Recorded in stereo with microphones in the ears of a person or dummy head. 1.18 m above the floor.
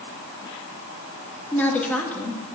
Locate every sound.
1.5 s a woman speaking: 10° left (ahead or behind), 1.9 m